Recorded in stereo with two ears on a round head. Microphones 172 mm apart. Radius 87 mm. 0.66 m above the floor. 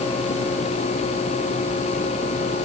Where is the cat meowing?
No cat meowing in this recording.